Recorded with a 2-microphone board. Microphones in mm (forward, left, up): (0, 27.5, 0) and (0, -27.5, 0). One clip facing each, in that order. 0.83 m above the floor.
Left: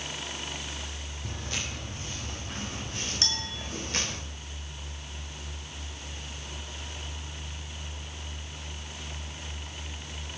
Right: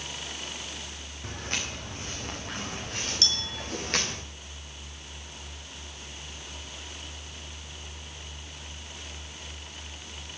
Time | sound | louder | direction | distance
1.2 | footsteps | right 2 dB | 45° right (ahead or behind) | 6.5 m
3.2 | a clink | right 1 dB | 30° left (ahead or behind) | 6.5 m